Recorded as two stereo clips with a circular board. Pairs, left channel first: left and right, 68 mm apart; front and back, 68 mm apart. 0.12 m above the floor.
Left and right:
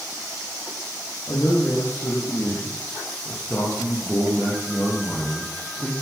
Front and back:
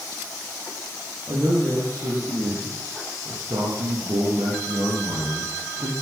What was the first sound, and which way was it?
A man speaking, 140° left.